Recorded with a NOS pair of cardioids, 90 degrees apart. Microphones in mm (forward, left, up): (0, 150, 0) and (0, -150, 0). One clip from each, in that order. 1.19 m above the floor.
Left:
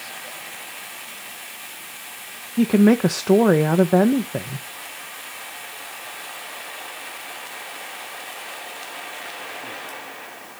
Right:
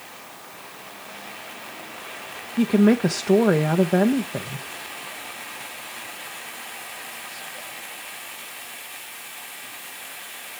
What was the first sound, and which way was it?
A woman speaking, 10° left.